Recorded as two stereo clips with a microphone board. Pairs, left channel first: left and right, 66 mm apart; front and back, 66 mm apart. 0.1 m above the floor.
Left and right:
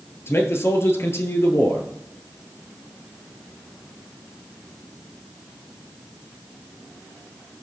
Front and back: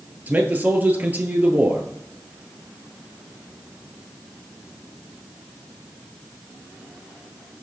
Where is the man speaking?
125° left, 1.6 m.